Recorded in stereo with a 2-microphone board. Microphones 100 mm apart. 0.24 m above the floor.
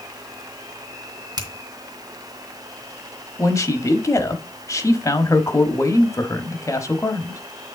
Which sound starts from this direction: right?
A finger snap, at 1.4 s.